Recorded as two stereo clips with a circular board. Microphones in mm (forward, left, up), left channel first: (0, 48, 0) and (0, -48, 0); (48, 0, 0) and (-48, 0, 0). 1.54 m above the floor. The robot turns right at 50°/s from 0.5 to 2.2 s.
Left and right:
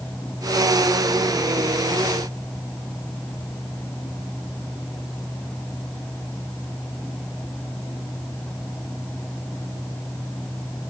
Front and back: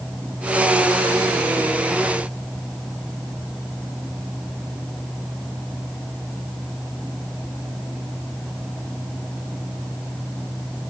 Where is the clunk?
I don't hear a clunk.